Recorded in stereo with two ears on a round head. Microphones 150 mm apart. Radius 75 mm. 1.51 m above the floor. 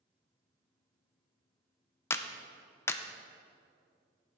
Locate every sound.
2.1 s a clap: 15° left (ahead or behind), 0.5 m